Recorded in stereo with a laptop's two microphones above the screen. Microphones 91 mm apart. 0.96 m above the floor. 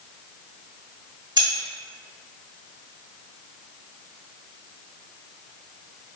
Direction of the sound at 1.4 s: 45° right (ahead or behind).